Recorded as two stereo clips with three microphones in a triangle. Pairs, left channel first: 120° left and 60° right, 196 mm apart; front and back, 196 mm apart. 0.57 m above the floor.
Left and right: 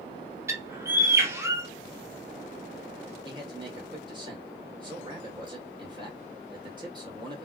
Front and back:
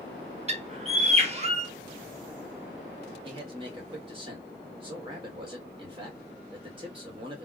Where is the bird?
130° right, 0.7 m.